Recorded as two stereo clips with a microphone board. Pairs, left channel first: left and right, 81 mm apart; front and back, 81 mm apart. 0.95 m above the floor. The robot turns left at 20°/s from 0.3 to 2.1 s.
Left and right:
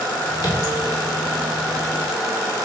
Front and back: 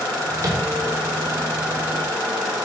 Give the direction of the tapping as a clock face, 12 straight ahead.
8 o'clock.